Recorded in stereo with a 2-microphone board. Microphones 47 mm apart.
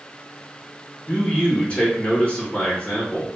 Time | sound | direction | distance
1.1 | a man speaking | 25° left (ahead or behind) | 1.5 m